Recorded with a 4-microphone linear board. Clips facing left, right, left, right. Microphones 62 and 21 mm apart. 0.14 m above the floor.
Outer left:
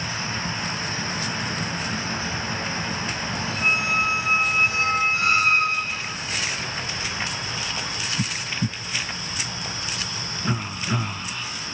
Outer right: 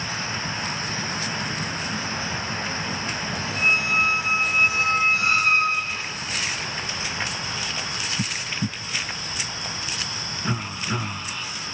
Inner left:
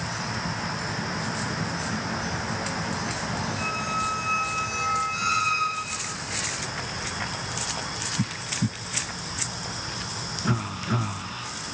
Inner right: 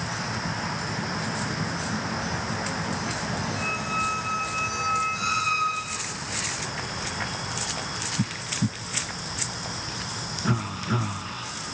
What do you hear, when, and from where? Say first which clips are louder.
3.5 s a squeak: outer right 1 dB, inner right 1 dB; 45° left (ahead or behind), 1.5 m